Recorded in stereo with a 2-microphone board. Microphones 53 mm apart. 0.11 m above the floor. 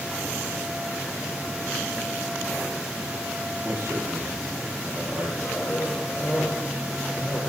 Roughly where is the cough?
Centre.